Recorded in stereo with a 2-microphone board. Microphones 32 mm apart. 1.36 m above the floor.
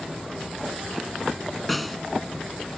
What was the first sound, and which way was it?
A snare drum, 5° left (ahead or behind).